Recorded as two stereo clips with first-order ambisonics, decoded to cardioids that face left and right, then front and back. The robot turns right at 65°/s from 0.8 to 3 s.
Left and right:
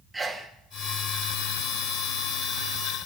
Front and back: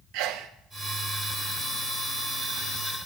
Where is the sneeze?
175° right, 1.1 m.